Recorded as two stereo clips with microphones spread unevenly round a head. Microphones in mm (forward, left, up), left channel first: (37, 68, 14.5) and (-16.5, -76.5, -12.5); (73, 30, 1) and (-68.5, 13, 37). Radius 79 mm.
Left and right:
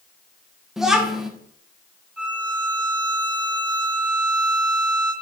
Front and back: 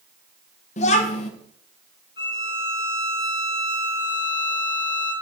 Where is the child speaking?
5° right, 0.9 m.